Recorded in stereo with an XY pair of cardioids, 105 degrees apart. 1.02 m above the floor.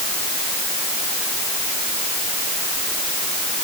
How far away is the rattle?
No rattle in this recording.